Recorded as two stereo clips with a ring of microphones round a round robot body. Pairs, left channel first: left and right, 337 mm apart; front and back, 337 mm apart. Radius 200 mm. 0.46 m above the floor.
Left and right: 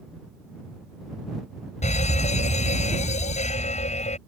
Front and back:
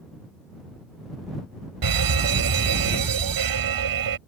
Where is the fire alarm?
160° left.